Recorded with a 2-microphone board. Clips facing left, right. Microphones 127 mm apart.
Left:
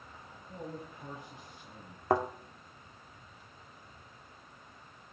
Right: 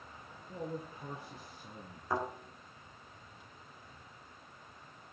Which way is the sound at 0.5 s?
20° right (ahead or behind).